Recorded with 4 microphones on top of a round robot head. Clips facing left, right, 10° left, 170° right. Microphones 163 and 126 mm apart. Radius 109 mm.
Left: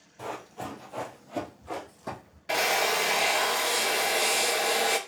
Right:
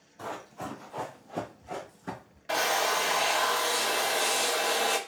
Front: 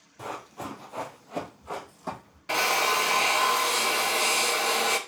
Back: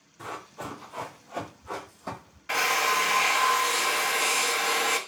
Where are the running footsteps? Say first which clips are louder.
Left 1 dB, front 2 dB; 20° left, 1.3 m; by 2.4 s 95° left, 2.0 m.